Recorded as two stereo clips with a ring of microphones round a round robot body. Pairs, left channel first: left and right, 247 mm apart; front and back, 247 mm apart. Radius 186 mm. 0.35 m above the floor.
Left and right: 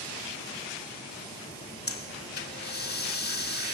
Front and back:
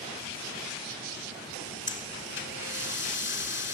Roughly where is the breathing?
Ahead left.